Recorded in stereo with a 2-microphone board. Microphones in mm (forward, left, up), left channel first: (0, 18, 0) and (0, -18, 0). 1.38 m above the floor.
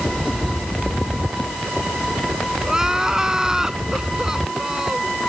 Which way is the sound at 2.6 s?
15° right (ahead or behind).